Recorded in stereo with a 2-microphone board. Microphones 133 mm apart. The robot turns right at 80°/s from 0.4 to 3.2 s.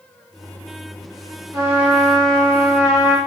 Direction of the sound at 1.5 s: 25° right (ahead or behind).